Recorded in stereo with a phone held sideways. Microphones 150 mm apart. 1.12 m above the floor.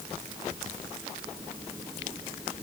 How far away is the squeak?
No squeak in this recording.